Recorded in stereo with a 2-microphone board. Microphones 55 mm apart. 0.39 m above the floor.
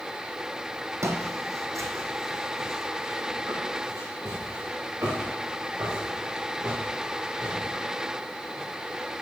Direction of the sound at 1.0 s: 70° right (ahead or behind).